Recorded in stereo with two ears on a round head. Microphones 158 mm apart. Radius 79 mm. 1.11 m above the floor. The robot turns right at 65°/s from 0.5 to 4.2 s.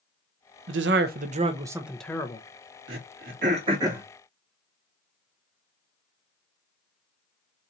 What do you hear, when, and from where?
0.7 s a man speaking: 85° right, 0.7 m; by 2.4 s 30° left, 0.7 m
2.9 s throat clearing: 80° right, 1.9 m; by 4.0 s 5° right (ahead or behind), 1.9 m